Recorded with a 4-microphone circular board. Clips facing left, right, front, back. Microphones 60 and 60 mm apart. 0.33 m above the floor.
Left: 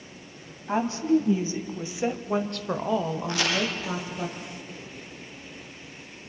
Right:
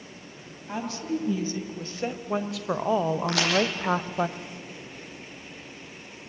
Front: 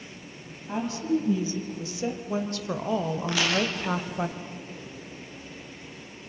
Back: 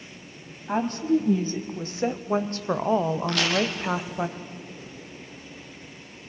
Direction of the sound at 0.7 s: 145° left.